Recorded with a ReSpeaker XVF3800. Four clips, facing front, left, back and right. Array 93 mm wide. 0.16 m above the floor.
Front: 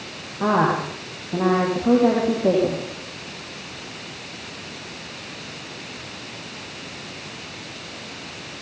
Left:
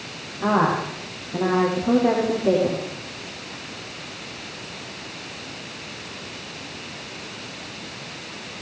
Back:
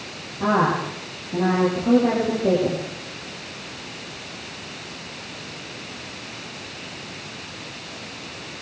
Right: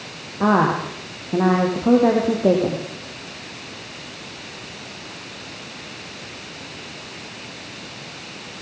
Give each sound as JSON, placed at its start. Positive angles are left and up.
{"t": 0.4, "sound": "a woman speaking", "azimuth_deg": -70, "distance_m": 8.5}